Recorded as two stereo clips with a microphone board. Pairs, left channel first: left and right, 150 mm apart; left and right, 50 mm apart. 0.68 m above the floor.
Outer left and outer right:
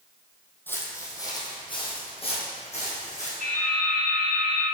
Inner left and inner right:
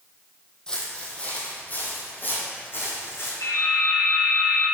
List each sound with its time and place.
0.7 s footsteps: 15° left (ahead or behind), 1.4 m; by 3.3 s 50° left (ahead or behind), 2.5 m
3.4 s dripping: 85° left, 2 m